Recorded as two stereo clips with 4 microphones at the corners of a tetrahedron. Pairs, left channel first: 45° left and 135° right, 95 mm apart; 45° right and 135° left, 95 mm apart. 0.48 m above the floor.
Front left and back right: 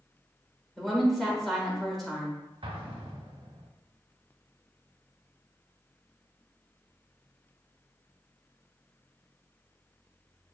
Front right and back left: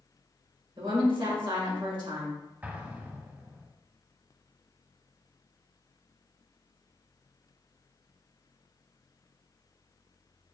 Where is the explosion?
155° right, 0.7 m.